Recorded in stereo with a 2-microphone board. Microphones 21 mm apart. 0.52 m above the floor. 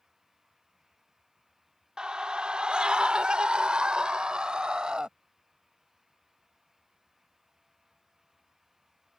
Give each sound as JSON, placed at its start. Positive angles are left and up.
{"t": 2.0, "sound": "a scream", "side_deg": -40}